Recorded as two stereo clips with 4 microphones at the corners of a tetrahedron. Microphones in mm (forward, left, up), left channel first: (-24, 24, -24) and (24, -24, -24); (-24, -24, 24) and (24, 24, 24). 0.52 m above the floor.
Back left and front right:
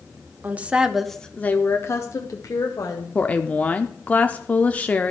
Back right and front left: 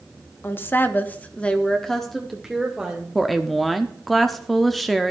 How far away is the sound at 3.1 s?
About 0.7 m.